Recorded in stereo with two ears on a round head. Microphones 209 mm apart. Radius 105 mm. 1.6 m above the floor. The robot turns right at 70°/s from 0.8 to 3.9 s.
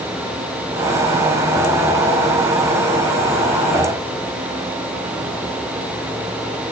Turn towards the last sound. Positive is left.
No sound to turn to.